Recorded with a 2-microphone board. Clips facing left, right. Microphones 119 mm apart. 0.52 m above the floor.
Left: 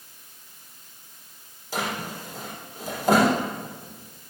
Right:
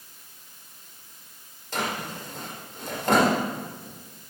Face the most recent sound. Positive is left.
turn(degrees=5)  # may be behind; listen again after turning